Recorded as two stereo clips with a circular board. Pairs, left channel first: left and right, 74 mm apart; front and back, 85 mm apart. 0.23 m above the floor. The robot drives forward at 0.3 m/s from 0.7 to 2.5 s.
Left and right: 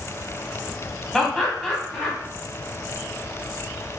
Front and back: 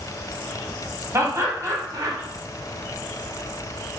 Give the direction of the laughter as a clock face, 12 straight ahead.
6 o'clock.